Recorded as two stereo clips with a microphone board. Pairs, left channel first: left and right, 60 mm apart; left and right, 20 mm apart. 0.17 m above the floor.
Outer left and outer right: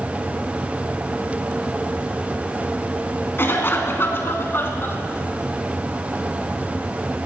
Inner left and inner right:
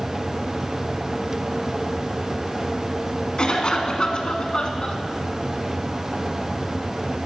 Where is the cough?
40° left (ahead or behind), 1.7 m.